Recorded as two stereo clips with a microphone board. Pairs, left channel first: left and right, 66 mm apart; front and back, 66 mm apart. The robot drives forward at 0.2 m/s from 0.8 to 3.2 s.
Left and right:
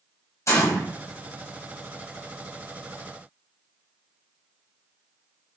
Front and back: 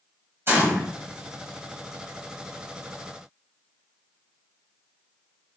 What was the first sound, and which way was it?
A gunshot, 130° left.